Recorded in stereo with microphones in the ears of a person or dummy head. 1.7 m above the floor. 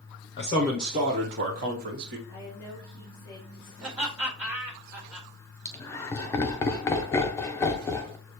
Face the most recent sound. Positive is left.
turn(degrees=15)  # may be behind; listen again after turning